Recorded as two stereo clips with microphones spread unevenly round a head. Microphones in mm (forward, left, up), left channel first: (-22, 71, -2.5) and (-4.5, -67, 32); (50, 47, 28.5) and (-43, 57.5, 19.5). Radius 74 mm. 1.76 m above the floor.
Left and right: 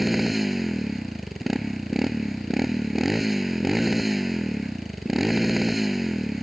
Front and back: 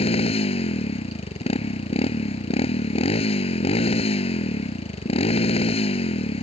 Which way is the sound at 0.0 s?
5° left.